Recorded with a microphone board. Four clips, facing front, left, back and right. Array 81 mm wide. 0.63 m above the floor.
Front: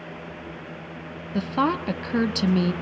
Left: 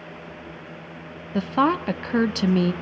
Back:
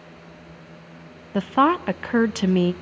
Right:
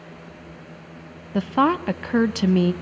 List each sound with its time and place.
1.3 s a woman speaking: 170° right, 0.6 m